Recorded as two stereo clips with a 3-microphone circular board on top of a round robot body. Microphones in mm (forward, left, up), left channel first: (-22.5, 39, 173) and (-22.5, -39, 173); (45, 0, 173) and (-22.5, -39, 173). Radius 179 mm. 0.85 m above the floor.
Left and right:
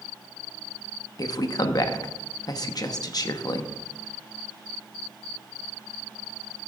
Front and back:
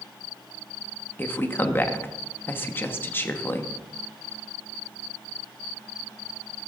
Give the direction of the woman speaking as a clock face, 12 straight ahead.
9 o'clock.